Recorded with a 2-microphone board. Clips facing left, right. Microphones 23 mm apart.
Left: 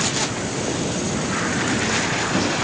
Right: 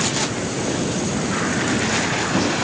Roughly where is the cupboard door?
No cupboard door in this recording.